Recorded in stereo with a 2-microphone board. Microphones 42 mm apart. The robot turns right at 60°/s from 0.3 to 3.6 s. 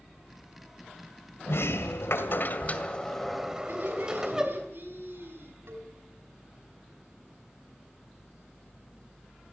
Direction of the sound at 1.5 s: 65° left.